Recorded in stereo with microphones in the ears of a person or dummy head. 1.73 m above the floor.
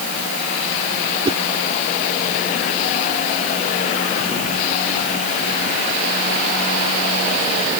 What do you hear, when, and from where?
1.2 s a whoosh: 30° right (ahead or behind)